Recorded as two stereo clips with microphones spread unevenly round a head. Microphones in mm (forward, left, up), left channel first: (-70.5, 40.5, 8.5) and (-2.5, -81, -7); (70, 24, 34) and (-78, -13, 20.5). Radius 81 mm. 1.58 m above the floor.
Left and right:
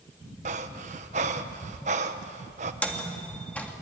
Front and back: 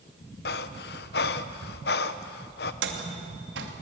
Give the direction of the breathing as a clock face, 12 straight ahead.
12 o'clock.